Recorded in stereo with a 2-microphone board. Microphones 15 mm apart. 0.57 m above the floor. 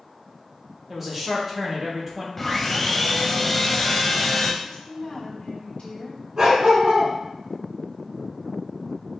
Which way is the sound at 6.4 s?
35° right (ahead or behind).